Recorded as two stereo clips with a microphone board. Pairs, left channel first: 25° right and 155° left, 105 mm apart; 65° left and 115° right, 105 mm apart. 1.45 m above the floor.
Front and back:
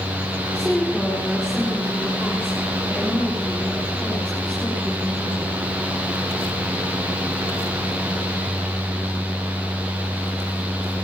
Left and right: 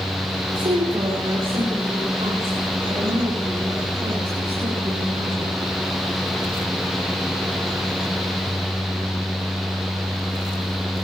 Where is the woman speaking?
105° right, 5 m; by 5.5 s 110° right, 10 m.